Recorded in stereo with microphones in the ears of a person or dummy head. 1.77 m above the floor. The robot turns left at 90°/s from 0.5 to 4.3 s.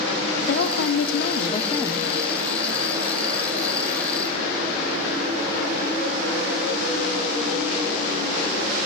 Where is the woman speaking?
130° left, 1.0 m; by 2.1 s 10° right, 1.0 m.